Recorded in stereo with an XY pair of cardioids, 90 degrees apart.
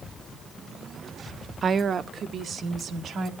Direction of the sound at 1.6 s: 45° right.